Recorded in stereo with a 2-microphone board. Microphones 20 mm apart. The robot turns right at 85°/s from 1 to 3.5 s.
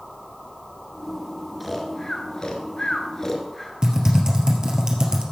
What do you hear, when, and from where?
1.6 s snoring: centre (ahead or behind), 1.3 m; by 3.7 s 15° left (ahead or behind), 1.3 m
3.8 s typing on a keyboard: 35° right (ahead or behind), 2.0 m